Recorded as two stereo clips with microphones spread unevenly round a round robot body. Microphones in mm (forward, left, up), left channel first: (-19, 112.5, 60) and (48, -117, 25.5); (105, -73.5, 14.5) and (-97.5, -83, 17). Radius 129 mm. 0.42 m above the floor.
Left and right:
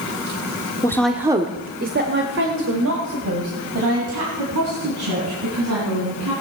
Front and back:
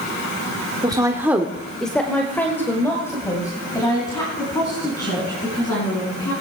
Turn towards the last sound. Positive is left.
turn(degrees=-70)